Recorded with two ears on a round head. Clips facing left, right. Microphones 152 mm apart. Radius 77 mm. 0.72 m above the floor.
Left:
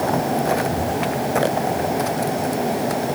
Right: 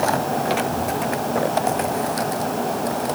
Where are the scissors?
I don't hear scissors.